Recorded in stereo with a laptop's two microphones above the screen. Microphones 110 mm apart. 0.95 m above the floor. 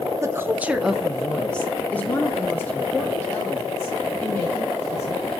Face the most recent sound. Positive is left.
turn(degrees=25)  # may be behind; listen again after turning